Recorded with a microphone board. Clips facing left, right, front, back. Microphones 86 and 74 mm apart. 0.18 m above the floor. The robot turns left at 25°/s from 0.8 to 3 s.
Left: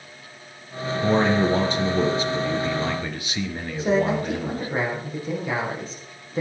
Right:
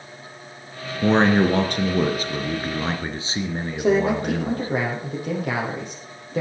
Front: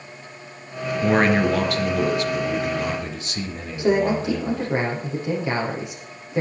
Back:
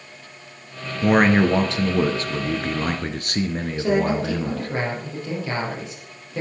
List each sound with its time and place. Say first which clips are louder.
1.0 s a man speaking: right 3 dB, back 2 dB; 100° right, 2.5 m; by 4.7 s 150° right, 2.5 m
3.8 s a man speaking: right 2 dB, front 2 dB; 70° right, 6.5 m